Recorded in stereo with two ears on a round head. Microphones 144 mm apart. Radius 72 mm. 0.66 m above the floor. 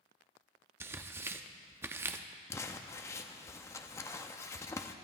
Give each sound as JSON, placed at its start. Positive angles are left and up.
{"t": 0.8, "sound": "tearing paper", "side_deg": -15, "distance_m": 0.6}
{"t": 2.5, "sound": "crumpling", "side_deg": 20, "distance_m": 0.7}